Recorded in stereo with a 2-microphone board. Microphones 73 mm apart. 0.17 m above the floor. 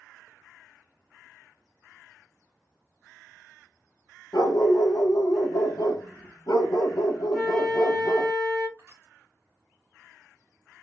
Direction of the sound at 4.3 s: 60° left (ahead or behind).